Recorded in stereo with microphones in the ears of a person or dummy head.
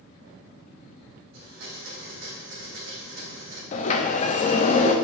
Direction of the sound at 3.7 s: 40° left (ahead or behind).